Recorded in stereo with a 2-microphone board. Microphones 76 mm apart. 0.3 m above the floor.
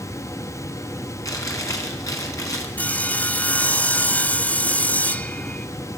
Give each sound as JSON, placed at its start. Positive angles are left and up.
{"t": 1.2, "sound": "chewing", "side_deg": 50, "distance_m": 4.0}
{"t": 2.8, "sound": "sawing", "side_deg": 20, "distance_m": 1.0}